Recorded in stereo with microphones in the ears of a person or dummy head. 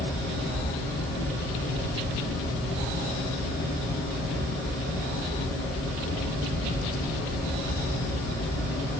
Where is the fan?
50° left (ahead or behind), 1.1 m.